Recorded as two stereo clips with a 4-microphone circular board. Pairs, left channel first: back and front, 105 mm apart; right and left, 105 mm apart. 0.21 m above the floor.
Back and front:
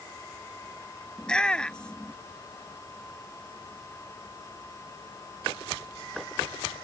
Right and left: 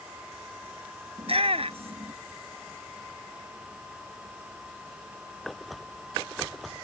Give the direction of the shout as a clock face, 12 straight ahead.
9 o'clock.